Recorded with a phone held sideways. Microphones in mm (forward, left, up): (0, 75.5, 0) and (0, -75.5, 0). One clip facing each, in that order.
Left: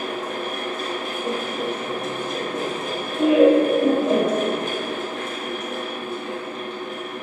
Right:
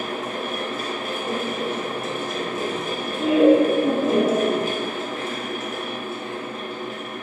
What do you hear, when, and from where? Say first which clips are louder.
0.0 s a fan: left 1 dB; 5° right (ahead or behind), 0.7 m
1.2 s laughter: even; 50° left (ahead or behind), 0.7 m